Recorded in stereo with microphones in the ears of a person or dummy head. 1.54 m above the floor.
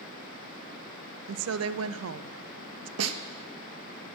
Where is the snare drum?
85° right, 0.8 m.